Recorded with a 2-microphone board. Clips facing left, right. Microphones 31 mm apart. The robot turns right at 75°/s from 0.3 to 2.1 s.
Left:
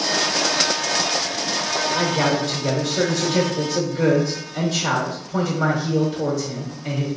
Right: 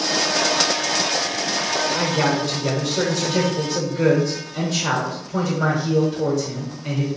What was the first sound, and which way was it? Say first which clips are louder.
A man speaking: left 2 dB; 15° right (ahead or behind).